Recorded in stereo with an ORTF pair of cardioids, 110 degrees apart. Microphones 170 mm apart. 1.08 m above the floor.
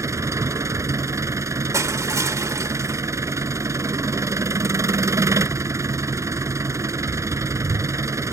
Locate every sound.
0.0 s an engine running: 20° right
1.7 s crushing: 20° right